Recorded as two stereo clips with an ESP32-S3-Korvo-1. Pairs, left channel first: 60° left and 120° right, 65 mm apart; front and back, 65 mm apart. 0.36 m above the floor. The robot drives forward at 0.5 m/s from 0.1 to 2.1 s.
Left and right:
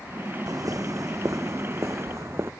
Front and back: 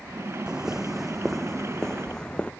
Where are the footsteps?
100° right; by 2.5 s 70° right.